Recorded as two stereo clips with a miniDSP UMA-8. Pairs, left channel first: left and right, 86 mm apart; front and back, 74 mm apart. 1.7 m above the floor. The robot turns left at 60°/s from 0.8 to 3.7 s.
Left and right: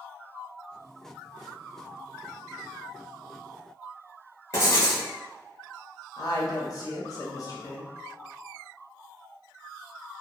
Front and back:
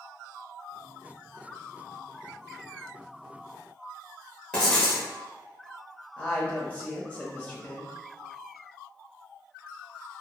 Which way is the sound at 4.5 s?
70° left.